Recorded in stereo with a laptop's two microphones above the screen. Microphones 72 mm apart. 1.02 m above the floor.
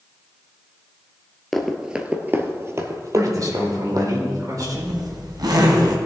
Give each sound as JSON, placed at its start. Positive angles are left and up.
{"t": 1.5, "sound": "running footsteps", "side_deg": 5, "distance_m": 1.0}
{"t": 3.1, "sound": "a man speaking", "side_deg": -55, "distance_m": 4.0}
{"t": 4.6, "sound": "a zipper", "side_deg": -70, "distance_m": 2.0}